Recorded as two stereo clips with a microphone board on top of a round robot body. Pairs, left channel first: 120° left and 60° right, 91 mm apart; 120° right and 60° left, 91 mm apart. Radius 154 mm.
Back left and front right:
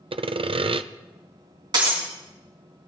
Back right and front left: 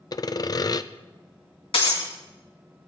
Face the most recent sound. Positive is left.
turn(degrees=-100)